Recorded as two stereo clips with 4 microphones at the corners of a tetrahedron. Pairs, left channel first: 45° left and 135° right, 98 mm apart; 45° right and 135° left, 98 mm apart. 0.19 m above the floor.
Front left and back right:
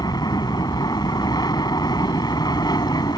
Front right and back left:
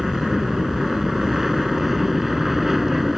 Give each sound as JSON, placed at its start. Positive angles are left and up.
{"t": 0.0, "sound": "an aircraft", "azimuth_deg": 50}